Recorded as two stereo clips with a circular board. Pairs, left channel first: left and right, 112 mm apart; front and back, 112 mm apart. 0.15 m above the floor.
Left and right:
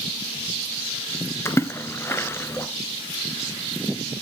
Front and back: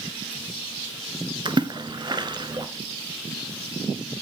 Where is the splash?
150° left, 1.4 m.